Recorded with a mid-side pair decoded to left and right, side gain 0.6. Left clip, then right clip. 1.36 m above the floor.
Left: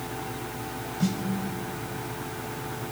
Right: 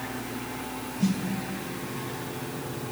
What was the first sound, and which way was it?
A snare drum, 20° left.